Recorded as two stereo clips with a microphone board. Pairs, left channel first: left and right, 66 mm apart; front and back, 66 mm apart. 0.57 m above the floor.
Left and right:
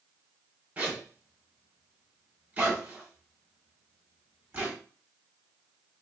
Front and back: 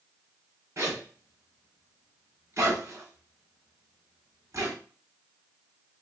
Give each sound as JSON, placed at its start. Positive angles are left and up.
{"t": 0.8, "sound": "a zipper", "azimuth_deg": -150, "distance_m": 1.5}